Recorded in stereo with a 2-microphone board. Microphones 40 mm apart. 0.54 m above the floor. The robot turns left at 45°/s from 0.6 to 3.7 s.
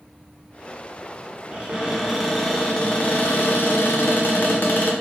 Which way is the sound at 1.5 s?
150° right.